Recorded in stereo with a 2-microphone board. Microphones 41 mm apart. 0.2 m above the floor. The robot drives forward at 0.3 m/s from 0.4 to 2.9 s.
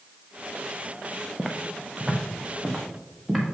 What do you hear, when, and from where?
1.4 s footsteps: 10° left (ahead or behind), 1.1 m; by 3.5 s 5° left (ahead or behind), 2.5 m